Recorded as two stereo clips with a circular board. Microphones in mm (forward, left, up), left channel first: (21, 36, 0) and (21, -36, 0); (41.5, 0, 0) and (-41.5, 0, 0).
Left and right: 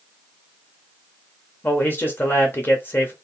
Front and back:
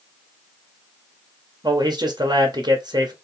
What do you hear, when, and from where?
1.6 s a man speaking: 150° left, 0.8 m